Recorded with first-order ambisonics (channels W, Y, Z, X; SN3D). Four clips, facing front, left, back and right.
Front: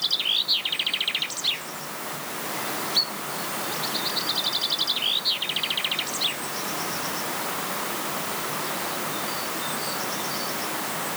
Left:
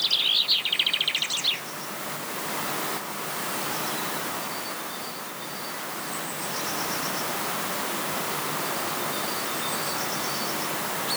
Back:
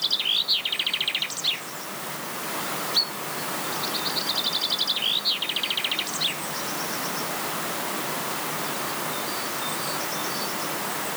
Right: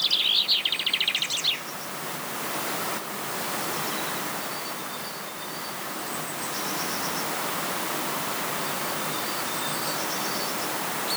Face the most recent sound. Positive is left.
No sound to turn to.